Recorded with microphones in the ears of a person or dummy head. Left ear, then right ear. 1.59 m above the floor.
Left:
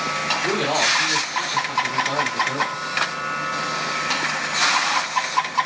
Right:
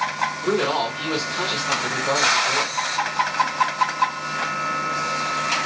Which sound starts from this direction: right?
A man speaking, at 0.4 s.